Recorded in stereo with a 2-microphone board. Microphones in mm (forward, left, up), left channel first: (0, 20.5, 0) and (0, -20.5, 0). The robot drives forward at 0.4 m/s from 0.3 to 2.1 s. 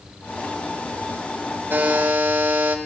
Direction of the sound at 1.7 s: 70° right (ahead or behind).